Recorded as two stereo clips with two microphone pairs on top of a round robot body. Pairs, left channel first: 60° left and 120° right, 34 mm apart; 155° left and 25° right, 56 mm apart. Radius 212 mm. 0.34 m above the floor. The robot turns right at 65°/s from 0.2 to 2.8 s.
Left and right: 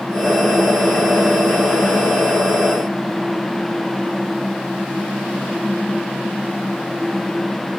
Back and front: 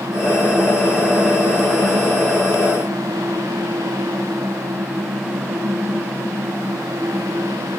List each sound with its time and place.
Only background noise.